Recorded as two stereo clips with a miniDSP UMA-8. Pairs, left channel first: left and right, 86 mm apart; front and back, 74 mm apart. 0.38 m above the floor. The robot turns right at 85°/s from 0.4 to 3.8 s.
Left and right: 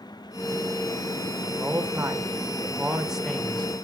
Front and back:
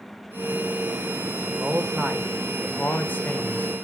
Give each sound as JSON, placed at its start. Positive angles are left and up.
{"t": 1.5, "sound": "a man speaking", "azimuth_deg": -150, "distance_m": 1.5}